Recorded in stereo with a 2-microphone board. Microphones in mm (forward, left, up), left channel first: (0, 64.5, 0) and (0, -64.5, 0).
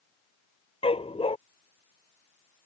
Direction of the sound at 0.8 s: 50° left (ahead or behind).